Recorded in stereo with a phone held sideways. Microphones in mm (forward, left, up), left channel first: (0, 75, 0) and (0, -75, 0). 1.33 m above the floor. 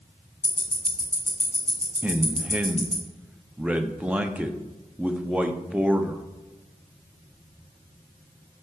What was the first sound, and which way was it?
Ticking, 45° left (ahead or behind).